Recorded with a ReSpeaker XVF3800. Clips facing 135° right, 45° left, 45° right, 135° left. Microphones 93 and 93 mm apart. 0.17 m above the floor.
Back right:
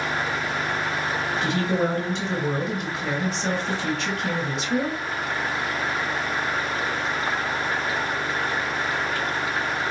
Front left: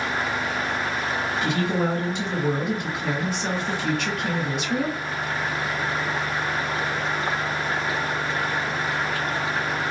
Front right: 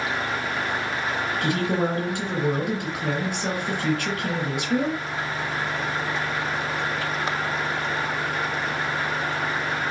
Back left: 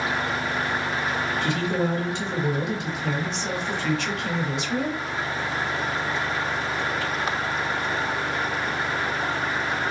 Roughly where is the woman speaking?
Ahead right.